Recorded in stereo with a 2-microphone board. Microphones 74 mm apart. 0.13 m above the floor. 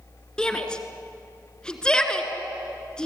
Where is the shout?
10° left (ahead or behind), 2 m.